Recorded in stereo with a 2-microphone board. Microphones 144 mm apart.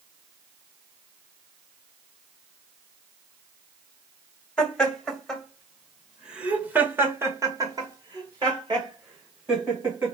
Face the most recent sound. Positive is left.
turn(degrees=-35)  # may be behind; listen again after turning